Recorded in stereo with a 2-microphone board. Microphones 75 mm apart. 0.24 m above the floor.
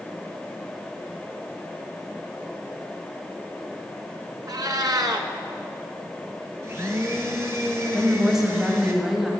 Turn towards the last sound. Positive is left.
turn(degrees=-5)  # may be behind; listen again after turning